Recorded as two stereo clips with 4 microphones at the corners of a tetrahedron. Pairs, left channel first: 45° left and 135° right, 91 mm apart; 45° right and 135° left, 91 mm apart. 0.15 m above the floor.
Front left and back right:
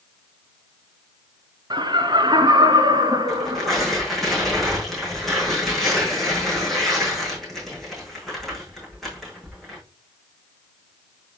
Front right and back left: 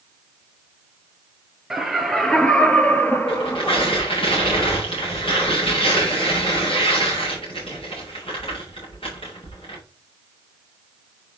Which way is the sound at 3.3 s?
45° right.